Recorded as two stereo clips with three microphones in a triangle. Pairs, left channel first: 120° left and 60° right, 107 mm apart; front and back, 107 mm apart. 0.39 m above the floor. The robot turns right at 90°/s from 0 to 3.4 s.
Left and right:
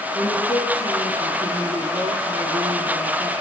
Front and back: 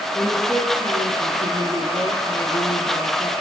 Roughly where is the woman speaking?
Left.